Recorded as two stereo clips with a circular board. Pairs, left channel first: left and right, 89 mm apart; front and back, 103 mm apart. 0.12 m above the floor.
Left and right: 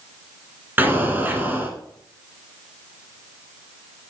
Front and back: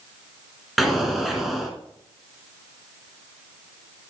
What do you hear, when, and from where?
0.8 s an explosion: 95° right, 1.4 m